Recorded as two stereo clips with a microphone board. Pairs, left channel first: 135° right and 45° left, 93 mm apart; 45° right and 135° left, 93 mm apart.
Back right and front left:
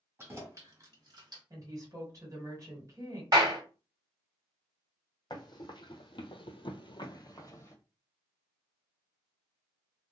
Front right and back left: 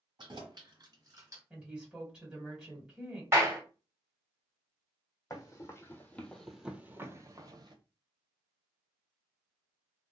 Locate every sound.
0.2 s keys jangling: 105° left, 1.4 m; by 1.4 s 75° left, 1.3 m
1.5 s a woman speaking: 60° left, 1.7 m
3.3 s a clap: 80° left, 1.8 m
5.3 s running footsteps: 95° right, 1.1 m; by 7.8 s 165° left, 0.8 m